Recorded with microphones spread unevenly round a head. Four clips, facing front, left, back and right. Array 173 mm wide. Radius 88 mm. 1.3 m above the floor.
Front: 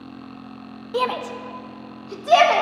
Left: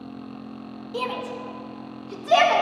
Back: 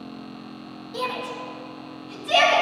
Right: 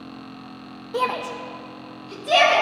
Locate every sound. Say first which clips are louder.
0.9 s a shout: right 5 dB, front 6 dB; 45° right, 0.7 m; by 2.6 s 10° right, 1.6 m